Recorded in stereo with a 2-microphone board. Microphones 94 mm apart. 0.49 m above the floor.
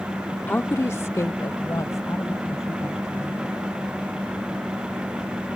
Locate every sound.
0.5 s a woman speaking: 20° left (ahead or behind); by 3.6 s 35° left (ahead or behind)